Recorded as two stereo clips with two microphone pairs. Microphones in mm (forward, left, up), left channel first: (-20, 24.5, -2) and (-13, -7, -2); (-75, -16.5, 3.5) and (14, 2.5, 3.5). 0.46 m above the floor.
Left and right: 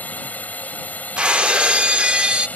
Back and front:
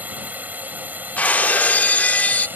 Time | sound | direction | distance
0.0 | a drone | 80° left | ?
1.2 | breaking glass | 115° right | ?